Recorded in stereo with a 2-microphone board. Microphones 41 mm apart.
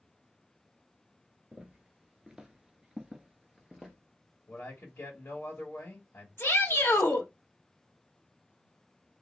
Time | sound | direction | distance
1.5 | footsteps | 20° right (ahead or behind) | 1.3 m
4.5 | a man speaking | 75° left (ahead or behind) | 2 m
6.4 | a shout | 85° left | 1.9 m